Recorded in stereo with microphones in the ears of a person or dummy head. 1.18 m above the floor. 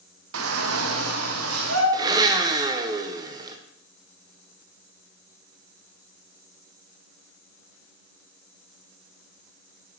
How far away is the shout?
About 0.9 m.